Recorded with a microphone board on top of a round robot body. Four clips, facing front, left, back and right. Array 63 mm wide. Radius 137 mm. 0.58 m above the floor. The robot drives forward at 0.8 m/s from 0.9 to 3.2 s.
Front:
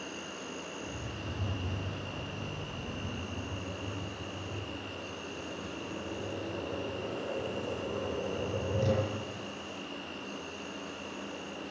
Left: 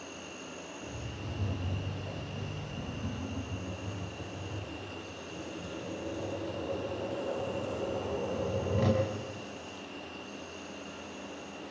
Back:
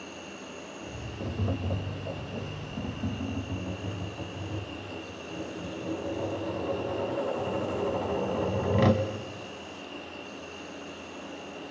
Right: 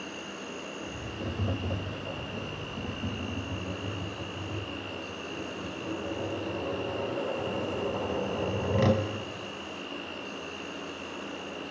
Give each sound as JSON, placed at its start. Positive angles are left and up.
{"t": 0.0, "sound": "an insect", "azimuth_deg": -65, "distance_m": 7.0}
{"t": 1.2, "sound": "tapping", "azimuth_deg": -140, "distance_m": 1.4}